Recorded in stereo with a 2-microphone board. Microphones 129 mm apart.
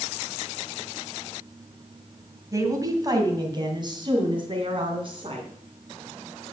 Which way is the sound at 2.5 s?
25° right (ahead or behind).